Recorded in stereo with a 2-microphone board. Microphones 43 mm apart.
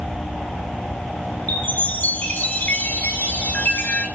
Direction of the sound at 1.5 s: 40° left (ahead or behind).